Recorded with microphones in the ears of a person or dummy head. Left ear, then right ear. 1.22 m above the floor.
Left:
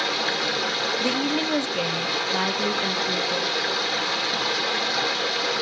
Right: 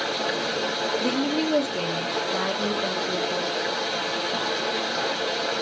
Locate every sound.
0.0 s running water: 70° left (ahead or behind), 1.2 m
1.0 s a woman speaking: 55° left (ahead or behind), 1.0 m